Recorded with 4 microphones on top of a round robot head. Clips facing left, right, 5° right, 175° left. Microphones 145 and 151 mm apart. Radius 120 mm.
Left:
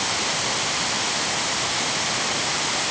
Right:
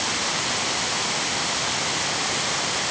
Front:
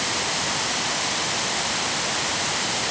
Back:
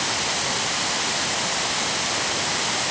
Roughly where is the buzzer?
No buzzer in this recording.